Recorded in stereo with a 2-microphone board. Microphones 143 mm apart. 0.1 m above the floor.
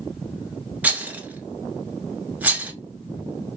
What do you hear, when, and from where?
0.8 s a rattle: 10° right (ahead or behind), 0.6 m